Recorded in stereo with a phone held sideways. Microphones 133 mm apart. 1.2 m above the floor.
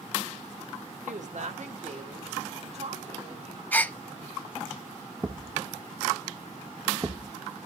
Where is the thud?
20° right (ahead or behind), 0.7 m.